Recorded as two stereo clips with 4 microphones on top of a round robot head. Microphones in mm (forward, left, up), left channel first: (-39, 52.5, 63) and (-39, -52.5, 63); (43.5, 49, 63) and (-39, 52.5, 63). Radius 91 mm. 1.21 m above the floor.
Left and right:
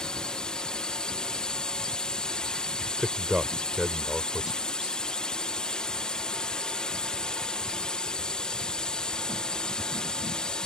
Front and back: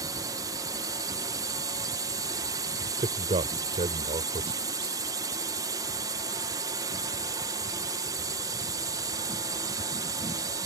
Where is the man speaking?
175° right.